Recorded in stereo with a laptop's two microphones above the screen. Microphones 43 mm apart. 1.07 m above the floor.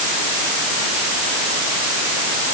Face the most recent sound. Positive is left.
No sound to turn to.